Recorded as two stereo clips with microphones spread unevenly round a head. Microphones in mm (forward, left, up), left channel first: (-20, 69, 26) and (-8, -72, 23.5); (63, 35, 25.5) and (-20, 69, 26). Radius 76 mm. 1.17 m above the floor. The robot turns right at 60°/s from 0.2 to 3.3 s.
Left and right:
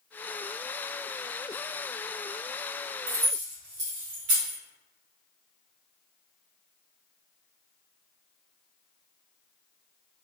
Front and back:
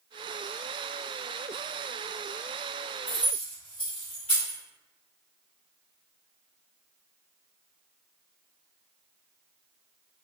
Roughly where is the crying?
I don't hear crying.